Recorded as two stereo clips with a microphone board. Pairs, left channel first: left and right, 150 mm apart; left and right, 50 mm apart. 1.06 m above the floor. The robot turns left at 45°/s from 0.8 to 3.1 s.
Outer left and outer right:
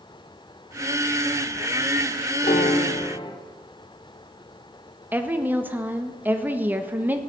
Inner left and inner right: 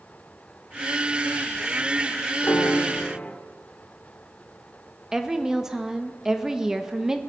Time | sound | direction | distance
2.4 | a piano | 65° left | 1.4 m
5.1 | a woman speaking | 10° right (ahead or behind) | 1.2 m